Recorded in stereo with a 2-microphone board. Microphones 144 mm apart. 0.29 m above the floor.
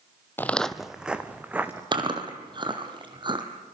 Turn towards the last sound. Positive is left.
turn(degrees=-35)  # may be behind; listen again after turning